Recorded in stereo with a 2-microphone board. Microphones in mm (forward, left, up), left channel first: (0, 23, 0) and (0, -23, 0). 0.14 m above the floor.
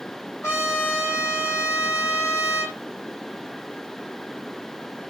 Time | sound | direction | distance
0.4 | a trumpet | 75° left (ahead or behind) | 7.5 m